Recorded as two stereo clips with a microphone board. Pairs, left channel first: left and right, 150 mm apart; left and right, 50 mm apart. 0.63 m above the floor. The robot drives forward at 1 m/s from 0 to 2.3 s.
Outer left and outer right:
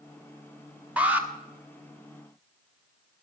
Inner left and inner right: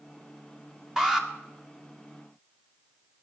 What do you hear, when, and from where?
1.0 s an alarm: 10° right (ahead or behind), 1.6 m